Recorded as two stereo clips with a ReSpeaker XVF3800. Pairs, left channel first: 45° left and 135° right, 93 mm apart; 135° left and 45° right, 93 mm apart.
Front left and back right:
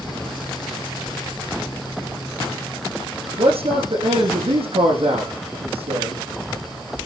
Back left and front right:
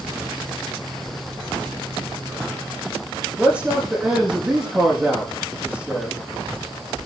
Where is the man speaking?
120° right, 6.5 m.